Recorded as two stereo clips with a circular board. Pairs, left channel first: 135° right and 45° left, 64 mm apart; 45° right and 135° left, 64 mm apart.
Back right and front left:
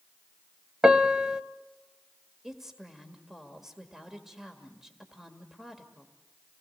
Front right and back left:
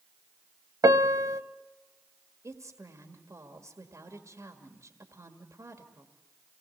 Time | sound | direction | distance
0.8 | a piano | 120° left | 0.7 m
2.4 | a woman speaking | 125° left | 1.7 m